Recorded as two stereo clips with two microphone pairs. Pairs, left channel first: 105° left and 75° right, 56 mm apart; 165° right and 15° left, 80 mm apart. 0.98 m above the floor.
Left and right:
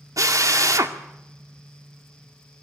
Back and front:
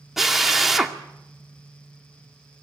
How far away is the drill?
About 2 m.